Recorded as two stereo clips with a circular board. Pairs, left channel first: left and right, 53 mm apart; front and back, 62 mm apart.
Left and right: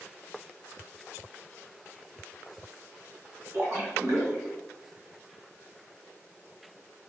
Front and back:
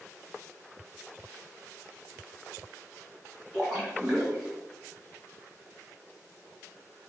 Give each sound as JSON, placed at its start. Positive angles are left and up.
{"t": 3.5, "sound": "a splash", "azimuth_deg": -105, "distance_m": 1.6}